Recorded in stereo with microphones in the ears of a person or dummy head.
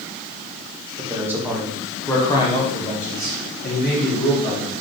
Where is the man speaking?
20° right (ahead or behind), 1.7 m; by 4.7 s 70° left (ahead or behind), 3 m.